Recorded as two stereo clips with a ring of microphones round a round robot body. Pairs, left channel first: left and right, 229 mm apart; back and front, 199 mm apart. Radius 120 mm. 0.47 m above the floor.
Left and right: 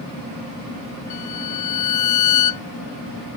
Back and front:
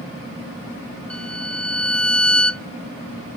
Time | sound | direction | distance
1.1 | a violin | 95° left | ?